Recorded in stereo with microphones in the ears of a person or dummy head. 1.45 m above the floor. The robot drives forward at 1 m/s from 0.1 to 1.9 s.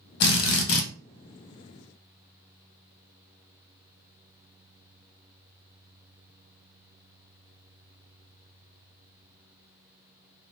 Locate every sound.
0.2 s a drill: 55° left (ahead or behind), 1.2 m; by 0.9 s 70° left (ahead or behind), 1.1 m